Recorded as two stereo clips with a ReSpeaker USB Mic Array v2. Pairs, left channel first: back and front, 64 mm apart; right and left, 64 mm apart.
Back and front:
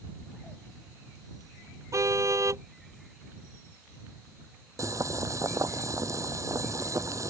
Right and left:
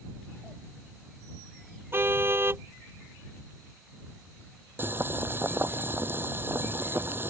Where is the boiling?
35° left.